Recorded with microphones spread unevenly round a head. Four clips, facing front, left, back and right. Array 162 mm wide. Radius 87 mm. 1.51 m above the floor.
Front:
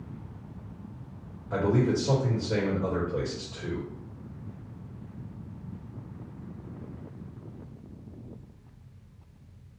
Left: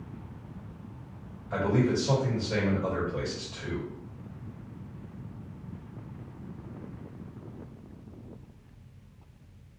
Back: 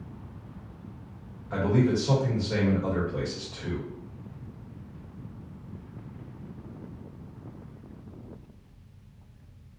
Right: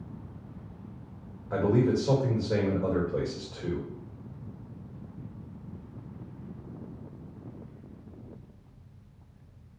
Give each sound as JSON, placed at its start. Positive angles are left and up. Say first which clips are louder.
{"t": 1.5, "sound": "a man speaking", "louder": "right 2 dB, back 1 dB", "azimuth_deg": -75, "distance_m": 2.0}